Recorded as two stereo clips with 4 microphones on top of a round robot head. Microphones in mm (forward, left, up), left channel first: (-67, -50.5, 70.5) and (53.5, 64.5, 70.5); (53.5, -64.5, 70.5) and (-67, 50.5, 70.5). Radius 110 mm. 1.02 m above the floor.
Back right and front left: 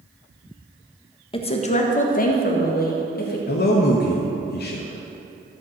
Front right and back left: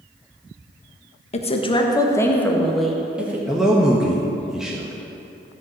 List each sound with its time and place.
1.3 s a woman speaking: 85° right, 1.5 m; by 3.4 s 145° right, 2.5 m
3.5 s a man speaking: 135° right, 1.3 m